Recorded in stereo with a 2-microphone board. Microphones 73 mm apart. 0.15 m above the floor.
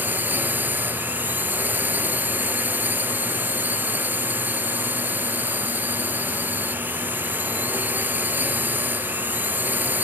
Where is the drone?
25° right (ahead or behind).